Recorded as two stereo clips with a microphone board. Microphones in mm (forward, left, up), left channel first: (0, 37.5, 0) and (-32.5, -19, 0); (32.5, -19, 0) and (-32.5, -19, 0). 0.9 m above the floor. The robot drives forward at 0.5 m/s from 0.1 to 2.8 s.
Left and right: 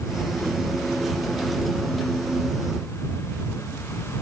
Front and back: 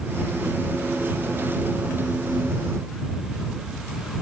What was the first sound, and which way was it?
Only background noise.